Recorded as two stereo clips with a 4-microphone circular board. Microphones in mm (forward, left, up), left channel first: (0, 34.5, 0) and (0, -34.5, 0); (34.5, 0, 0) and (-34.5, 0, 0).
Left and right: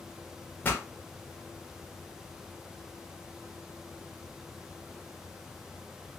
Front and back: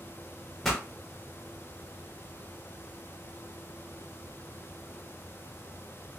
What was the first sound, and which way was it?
A pop, 75° left.